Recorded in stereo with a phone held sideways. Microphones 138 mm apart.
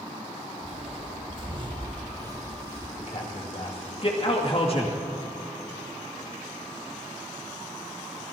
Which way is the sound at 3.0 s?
45° left (ahead or behind).